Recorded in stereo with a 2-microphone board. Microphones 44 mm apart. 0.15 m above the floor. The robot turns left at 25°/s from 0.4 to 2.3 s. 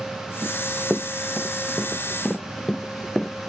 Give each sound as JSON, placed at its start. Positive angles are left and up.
{"t": 0.4, "sound": "running footsteps", "side_deg": -45}